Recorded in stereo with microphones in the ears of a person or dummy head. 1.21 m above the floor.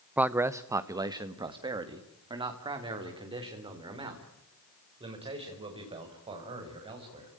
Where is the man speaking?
5° right (ahead or behind), 0.7 m; by 7.3 s 25° right (ahead or behind), 7 m.